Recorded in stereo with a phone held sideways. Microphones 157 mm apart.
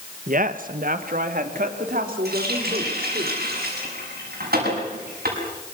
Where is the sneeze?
No sneeze in this recording.